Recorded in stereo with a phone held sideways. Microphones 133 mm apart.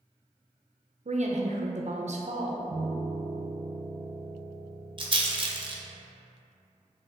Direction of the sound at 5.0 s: 40° right (ahead or behind).